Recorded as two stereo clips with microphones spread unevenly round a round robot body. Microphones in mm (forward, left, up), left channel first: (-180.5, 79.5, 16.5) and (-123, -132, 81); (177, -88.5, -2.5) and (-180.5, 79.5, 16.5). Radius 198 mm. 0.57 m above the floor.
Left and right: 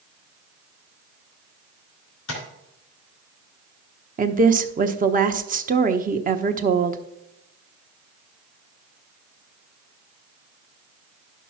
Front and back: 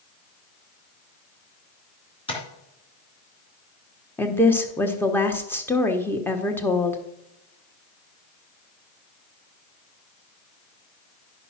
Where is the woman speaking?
90° right, 0.9 m.